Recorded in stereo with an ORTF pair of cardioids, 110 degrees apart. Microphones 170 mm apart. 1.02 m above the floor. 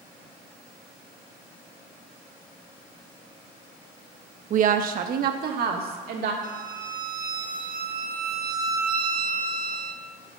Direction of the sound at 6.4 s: 55° right.